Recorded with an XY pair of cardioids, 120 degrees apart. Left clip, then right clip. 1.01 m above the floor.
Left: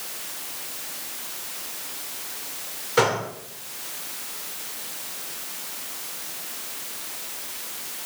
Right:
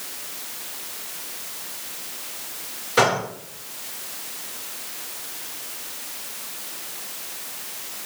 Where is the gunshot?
10° right, 1.8 m.